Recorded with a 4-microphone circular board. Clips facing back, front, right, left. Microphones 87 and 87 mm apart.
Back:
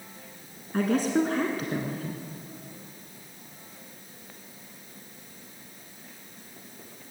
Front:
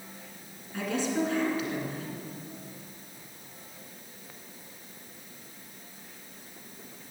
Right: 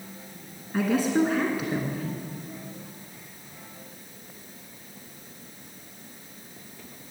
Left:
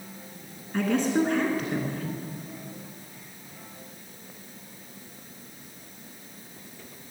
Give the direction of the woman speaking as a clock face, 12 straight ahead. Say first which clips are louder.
Back 5 dB, right 1 dB; 6 o'clock.